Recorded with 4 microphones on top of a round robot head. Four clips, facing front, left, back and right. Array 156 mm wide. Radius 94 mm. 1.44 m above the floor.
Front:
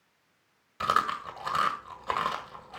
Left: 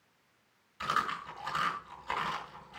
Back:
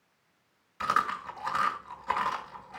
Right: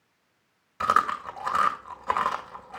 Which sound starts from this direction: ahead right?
Chewing, at 0.8 s.